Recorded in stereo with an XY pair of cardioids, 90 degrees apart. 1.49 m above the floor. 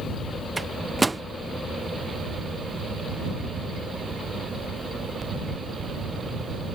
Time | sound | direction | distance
0.6 | a microwave | 20° right | ?